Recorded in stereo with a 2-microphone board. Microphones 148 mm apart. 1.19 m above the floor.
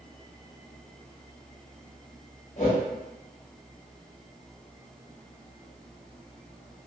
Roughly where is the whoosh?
Left.